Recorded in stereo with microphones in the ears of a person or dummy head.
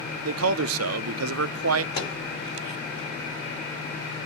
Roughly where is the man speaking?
Right.